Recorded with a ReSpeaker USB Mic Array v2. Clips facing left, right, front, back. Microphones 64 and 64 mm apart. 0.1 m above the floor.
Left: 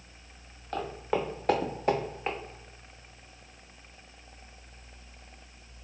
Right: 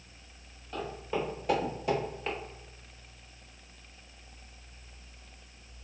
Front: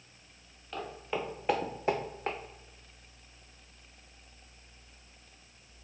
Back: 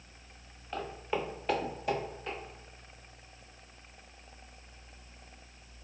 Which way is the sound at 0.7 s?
100° left.